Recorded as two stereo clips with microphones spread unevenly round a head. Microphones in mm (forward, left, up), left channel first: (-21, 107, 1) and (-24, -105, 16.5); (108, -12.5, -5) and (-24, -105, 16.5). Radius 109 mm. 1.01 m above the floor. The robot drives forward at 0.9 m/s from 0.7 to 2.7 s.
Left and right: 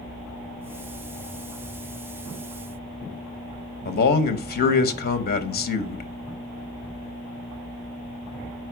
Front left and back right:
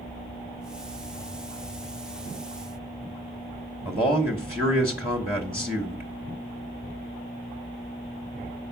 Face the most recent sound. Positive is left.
turn(degrees=130)